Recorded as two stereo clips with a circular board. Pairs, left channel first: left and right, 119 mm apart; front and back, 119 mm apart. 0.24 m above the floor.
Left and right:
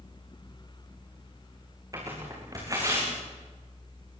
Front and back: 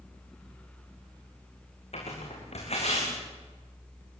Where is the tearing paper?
30° right, 7.5 m.